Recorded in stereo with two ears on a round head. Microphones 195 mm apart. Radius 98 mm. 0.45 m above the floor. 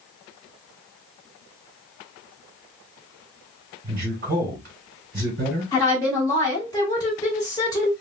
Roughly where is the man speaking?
Right.